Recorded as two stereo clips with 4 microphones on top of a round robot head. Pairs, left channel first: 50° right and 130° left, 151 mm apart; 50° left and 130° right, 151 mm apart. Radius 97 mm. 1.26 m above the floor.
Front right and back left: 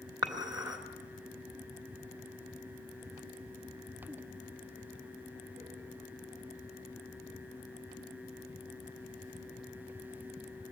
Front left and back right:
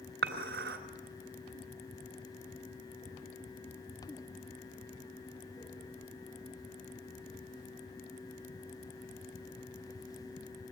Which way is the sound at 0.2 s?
160° right.